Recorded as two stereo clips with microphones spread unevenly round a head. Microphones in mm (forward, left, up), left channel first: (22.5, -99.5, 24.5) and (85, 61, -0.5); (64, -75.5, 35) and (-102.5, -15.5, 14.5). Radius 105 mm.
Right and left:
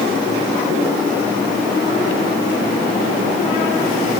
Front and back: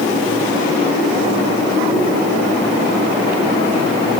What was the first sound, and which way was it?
Only background noise.